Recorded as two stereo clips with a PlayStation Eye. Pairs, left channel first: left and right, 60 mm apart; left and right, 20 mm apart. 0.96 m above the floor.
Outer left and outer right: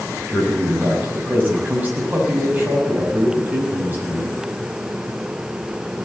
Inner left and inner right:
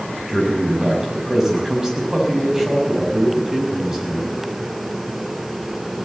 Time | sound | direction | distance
0.3 | a man speaking | 30° right (ahead or behind) | 5.5 m